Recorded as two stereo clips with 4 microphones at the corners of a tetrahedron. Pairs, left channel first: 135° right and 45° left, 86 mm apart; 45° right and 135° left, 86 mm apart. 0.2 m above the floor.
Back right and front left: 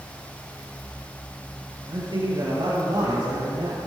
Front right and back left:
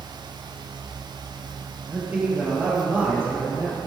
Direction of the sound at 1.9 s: 65° left.